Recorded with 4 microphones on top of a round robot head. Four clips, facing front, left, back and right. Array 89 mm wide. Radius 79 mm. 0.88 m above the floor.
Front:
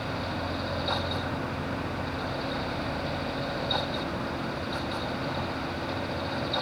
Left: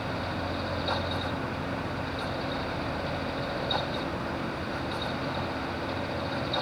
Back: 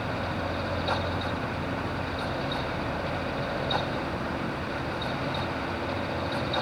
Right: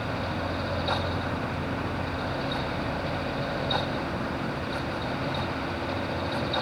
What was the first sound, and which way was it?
Only background noise.